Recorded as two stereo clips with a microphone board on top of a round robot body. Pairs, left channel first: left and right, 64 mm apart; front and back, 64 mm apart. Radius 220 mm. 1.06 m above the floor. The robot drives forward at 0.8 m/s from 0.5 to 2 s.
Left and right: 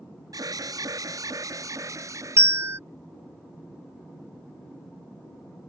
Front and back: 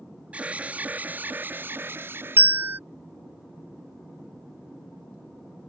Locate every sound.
0.3 s an alarm: 110° right; by 2.4 s 125° right
2.4 s a bell: 130° right